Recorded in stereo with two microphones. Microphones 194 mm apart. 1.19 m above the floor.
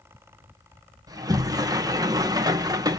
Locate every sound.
1.1 s a sliding door: 20° right (ahead or behind), 1.2 m